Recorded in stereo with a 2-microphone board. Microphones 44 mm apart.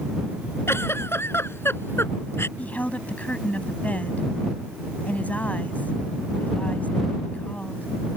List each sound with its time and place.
0.7 s a giggle: 75° left (ahead or behind)
2.6 s a woman speaking: 35° left (ahead or behind)